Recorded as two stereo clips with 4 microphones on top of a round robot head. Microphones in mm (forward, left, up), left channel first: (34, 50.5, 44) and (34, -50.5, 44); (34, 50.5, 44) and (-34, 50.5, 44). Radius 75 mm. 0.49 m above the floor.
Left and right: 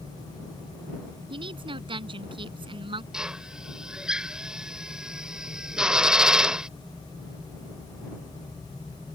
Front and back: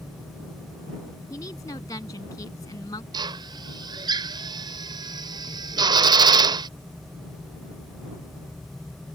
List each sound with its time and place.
1.3 s a woman speaking: 55° right
3.1 s a drill: 175° right